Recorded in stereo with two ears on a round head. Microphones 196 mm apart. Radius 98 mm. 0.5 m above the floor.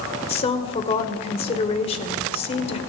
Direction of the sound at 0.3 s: 30° left (ahead or behind).